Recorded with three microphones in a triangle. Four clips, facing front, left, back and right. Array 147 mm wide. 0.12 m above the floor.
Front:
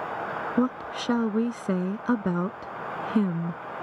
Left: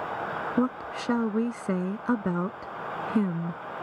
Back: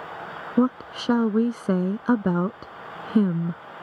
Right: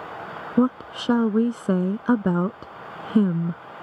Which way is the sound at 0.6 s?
125° right.